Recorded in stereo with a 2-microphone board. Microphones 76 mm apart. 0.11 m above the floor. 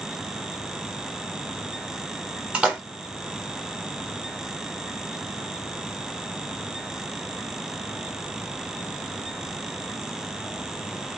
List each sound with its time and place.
2.5 s a splash: 10° right (ahead or behind), 0.9 m